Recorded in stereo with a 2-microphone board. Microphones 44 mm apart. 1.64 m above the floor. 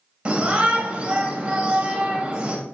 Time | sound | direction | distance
0.2 | a shout | 20° right (ahead or behind) | 2 m